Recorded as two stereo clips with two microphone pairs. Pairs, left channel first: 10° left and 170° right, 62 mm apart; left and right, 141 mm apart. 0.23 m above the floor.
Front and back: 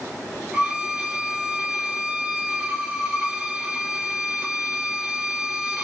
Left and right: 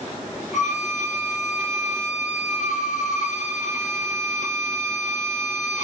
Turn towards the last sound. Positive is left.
turn(degrees=115)